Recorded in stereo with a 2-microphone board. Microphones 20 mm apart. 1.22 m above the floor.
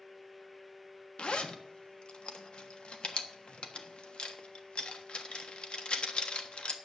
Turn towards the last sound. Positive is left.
turn(degrees=55)  # may be behind; listen again after turning